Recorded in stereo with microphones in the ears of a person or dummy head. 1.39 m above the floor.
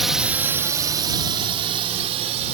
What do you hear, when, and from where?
0.0 s a drone: centre (ahead or behind); by 2.6 s 35° right (ahead or behind)